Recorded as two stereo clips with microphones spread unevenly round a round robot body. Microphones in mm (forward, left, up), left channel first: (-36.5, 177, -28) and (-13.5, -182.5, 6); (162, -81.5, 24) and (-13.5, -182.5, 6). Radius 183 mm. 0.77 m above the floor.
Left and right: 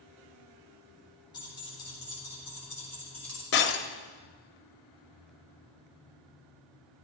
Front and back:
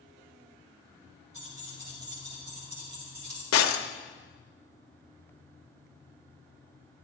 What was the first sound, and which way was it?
Keys jangling, 170° left.